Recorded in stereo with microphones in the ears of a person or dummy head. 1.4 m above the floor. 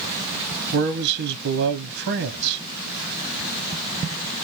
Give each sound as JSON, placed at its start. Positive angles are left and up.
{"t": 0.7, "sound": "a man speaking", "side_deg": -60, "distance_m": 0.6}